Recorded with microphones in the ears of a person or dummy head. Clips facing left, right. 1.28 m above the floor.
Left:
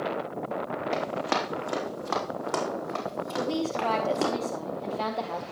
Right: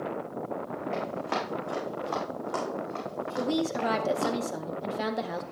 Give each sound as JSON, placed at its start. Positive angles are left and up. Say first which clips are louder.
{"t": 0.9, "sound": "running footsteps", "louder": "left 3 dB", "side_deg": 65, "distance_m": 3.0}
{"t": 3.4, "sound": "a woman speaking", "louder": "right 1 dB", "side_deg": -20, "distance_m": 0.6}